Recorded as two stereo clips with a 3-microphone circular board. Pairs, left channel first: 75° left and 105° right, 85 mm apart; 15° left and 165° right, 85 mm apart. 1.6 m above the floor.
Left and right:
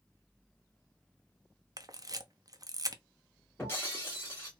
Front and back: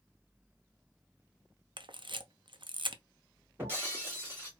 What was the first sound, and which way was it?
A camera shutter, 150° right.